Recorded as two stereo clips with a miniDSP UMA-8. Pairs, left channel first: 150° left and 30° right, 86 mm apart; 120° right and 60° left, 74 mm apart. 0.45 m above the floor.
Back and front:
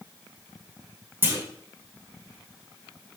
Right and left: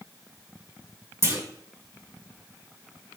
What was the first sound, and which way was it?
A clunk, 25° left.